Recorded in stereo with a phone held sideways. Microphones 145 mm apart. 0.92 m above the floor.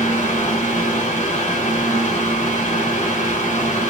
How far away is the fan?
About 2 m.